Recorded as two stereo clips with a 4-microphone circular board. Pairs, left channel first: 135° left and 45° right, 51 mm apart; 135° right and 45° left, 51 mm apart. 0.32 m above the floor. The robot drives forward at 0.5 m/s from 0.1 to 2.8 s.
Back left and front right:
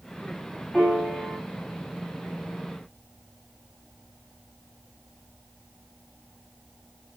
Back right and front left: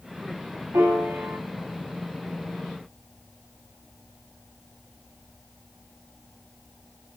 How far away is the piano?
About 0.8 m.